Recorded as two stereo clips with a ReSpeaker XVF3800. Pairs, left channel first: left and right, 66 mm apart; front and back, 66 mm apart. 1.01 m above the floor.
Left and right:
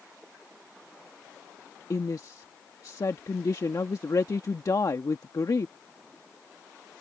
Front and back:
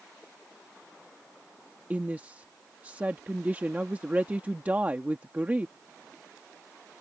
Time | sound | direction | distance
1.9 | a woman speaking | 115° left | ?